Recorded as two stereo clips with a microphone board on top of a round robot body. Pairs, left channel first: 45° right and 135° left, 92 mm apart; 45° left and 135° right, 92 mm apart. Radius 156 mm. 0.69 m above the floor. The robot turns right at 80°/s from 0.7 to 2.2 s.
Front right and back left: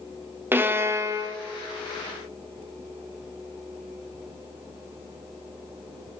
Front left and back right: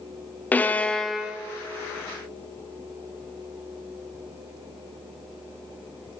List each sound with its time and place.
0.5 s a violin: 100° left, 0.8 m; by 1.4 s 150° left, 0.8 m